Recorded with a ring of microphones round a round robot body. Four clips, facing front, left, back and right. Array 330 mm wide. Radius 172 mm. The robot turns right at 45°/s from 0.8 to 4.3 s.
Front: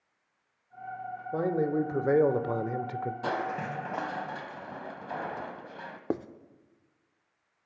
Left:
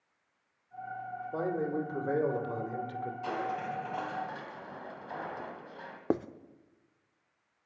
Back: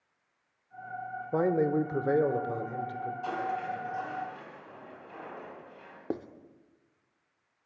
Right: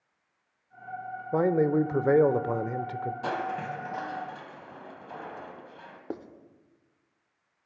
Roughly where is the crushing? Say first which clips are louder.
Right 1 dB, even; ahead right.